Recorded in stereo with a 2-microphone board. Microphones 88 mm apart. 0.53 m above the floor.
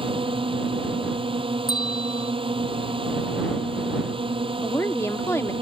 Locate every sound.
0.0 s a drone: 80° right
1.7 s a bell: 50° left (ahead or behind)
4.6 s a woman speaking: 30° left (ahead or behind)